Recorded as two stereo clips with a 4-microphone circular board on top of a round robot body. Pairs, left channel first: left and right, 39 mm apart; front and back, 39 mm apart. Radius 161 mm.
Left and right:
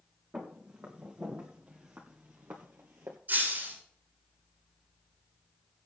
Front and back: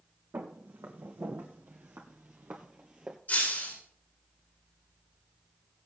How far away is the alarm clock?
No alarm clock in this recording.